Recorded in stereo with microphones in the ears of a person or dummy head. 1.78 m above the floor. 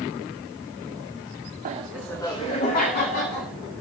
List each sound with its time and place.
1.6 s laughter: 35° right (ahead or behind), 0.6 m; by 3.5 s 55° left (ahead or behind), 1.8 m